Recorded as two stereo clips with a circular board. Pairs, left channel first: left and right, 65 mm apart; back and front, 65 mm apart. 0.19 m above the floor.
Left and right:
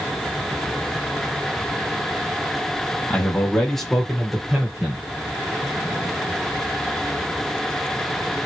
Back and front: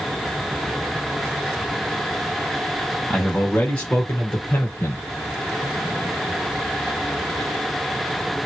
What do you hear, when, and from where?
3.1 s a man speaking: 115° left, 1.1 m; by 5.0 s 160° right, 1.4 m